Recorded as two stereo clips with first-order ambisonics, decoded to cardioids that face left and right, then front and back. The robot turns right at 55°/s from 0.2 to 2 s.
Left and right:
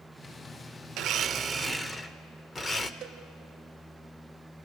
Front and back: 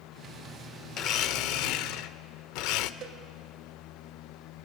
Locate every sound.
1.0 s a blender: 45° right, 0.6 m; by 2.9 s 10° left, 0.6 m
3.0 s a cowbell: 145° right, 2.5 m